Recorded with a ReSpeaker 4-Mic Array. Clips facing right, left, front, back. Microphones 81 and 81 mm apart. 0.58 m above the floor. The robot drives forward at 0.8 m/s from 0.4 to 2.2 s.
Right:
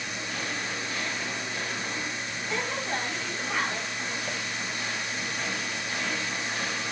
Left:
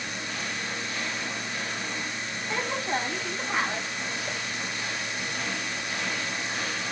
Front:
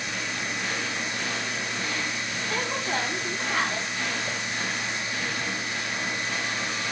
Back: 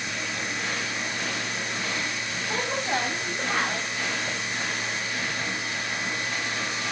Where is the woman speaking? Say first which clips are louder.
Left 2 dB, back 2 dB; 160° left, 3.5 m.